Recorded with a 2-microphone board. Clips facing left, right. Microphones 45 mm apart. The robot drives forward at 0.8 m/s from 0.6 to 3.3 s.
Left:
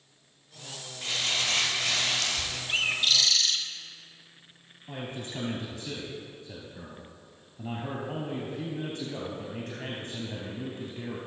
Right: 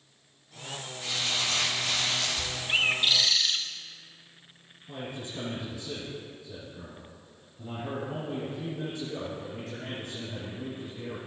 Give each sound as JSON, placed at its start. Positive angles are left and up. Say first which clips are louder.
{"t": 1.0, "sound": "crumpling", "louder": "left 1 dB", "side_deg": 50, "distance_m": 3.5}
{"t": 2.7, "sound": "a bird", "louder": "right 2 dB", "side_deg": -15, "distance_m": 0.9}
{"t": 4.9, "sound": "a man speaking", "louder": "left 1 dB", "side_deg": 60, "distance_m": 2.5}